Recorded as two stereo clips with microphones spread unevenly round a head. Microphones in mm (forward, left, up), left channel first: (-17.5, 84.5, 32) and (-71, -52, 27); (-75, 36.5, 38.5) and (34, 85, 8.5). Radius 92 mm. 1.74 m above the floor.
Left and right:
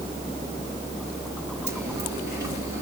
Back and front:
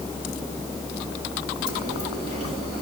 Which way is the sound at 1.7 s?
40° right.